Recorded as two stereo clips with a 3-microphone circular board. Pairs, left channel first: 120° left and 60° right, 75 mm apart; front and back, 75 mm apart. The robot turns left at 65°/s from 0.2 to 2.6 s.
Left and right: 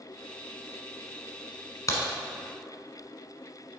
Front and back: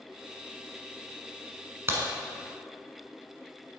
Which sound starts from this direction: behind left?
A crack, at 1.9 s.